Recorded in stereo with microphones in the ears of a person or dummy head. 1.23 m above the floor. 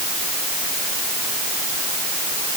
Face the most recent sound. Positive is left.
No sound to turn to.